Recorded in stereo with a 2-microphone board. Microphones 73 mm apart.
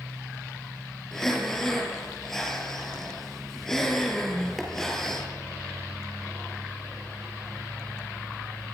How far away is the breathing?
About 5 m.